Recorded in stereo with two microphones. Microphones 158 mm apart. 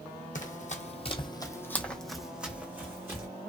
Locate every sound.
0.3 s running footsteps: 55° left (ahead or behind), 0.7 m; by 3.3 s 15° right (ahead or behind), 1.2 m